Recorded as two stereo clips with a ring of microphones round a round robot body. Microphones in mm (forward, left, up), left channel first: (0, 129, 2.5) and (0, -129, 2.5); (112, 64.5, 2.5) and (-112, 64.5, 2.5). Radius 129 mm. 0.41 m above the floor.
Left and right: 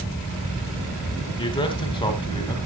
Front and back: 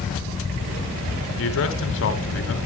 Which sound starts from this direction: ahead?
A man speaking, at 1.4 s.